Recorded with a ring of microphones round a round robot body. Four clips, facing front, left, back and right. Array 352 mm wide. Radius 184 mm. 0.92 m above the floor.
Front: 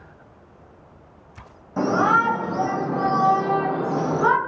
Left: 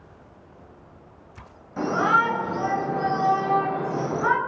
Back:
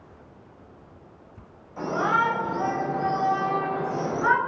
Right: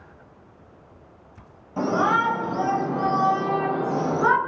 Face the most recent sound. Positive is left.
turn(degrees=-35)